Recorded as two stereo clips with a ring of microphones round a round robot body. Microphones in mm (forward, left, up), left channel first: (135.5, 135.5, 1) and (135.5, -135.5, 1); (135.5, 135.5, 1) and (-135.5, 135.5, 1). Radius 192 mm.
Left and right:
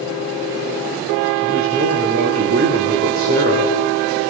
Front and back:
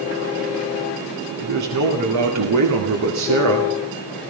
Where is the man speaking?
155° right, 2 m.